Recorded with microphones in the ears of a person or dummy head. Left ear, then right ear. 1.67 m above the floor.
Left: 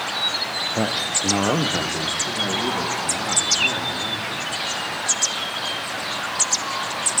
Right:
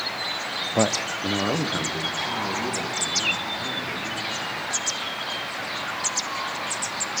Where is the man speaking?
35° right (ahead or behind), 0.5 m; by 4.5 s 30° left (ahead or behind), 5.5 m.